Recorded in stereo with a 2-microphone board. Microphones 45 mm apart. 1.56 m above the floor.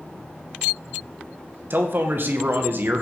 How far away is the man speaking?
About 1.9 m.